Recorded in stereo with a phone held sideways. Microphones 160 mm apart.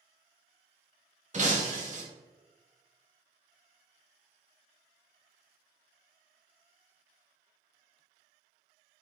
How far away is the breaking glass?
About 0.8 m.